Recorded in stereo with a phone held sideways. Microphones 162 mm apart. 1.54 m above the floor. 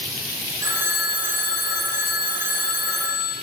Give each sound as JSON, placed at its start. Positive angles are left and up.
{"t": 0.6, "sound": "a phone ringing", "side_deg": -15, "distance_m": 0.8}